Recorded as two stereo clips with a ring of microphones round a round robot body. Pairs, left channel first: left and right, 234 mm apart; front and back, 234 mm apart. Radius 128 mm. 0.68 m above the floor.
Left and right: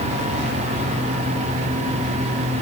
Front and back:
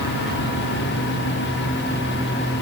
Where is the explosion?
No explosion in this recording.